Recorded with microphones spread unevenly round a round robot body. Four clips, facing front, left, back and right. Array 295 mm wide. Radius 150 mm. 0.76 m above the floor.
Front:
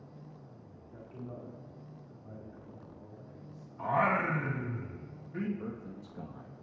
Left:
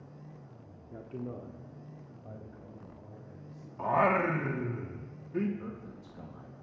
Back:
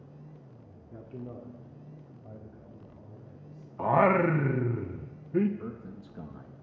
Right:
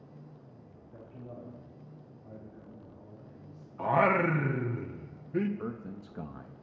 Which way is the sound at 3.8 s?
165° right.